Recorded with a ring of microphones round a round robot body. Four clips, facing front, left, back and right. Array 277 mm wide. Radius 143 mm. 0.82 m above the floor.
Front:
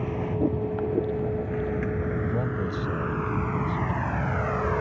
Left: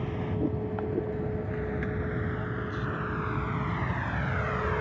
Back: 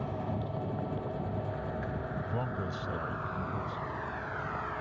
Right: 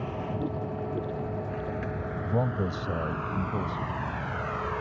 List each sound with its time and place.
0.0 s a vehicle: 10° left; by 4.8 s 15° left
2.2 s a man speaking: 70° right